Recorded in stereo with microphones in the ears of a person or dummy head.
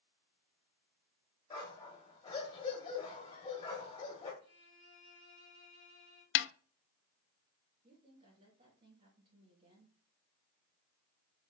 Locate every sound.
1.5 s a dog barking: 25° left (ahead or behind), 3 m
4.4 s a violin: 45° right (ahead or behind), 4 m
6.3 s a snare drum: 60° left (ahead or behind), 0.5 m
7.8 s a woman speaking: 35° right (ahead or behind), 3.5 m